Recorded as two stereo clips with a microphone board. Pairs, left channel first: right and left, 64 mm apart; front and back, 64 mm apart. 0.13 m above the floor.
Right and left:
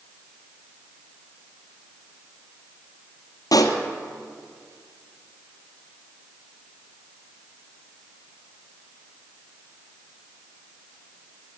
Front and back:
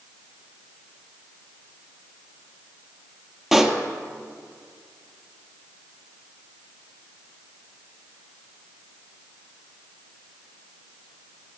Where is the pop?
95° right, 1.3 m.